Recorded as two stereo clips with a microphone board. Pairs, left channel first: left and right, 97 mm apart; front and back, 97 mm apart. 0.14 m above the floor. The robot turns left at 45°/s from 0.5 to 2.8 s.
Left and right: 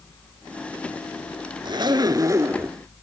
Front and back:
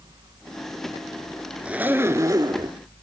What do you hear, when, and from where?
1.6 s a zipper: 105° right, 0.6 m; by 2.8 s 155° right, 0.6 m